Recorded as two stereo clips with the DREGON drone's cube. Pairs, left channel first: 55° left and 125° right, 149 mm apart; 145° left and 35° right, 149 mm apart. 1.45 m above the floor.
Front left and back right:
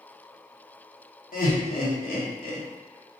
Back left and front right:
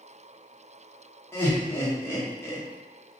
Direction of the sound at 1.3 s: 70° left.